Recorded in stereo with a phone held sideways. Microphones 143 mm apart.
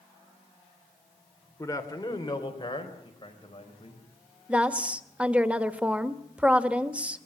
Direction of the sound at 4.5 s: 10° right (ahead or behind).